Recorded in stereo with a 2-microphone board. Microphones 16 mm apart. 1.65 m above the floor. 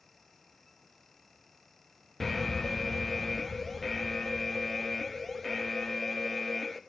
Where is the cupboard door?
No cupboard door in this recording.